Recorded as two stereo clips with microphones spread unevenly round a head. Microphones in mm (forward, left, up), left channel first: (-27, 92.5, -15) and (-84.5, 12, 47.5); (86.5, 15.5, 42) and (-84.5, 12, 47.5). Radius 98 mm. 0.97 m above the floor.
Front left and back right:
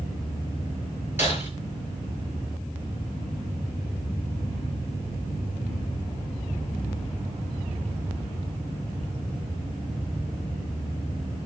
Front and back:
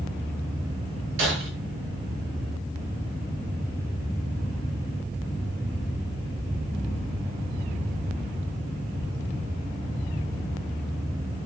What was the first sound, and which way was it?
Breaking glass, 170° left.